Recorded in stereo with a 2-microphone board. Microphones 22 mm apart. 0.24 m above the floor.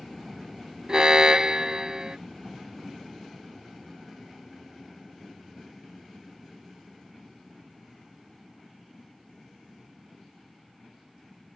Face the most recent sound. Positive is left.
turn(degrees=-35)  # may be behind; listen again after turning